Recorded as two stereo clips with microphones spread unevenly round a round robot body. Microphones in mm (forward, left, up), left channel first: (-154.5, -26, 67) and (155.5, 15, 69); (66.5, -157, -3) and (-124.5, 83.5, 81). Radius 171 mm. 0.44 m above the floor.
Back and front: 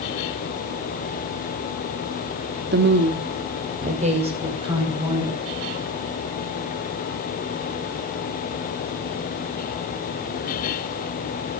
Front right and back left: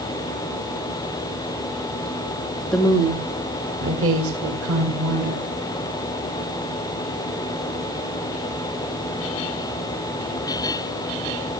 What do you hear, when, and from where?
2.7 s a woman speaking: 5° left, 1.5 m; by 5.4 s 85° left, 4 m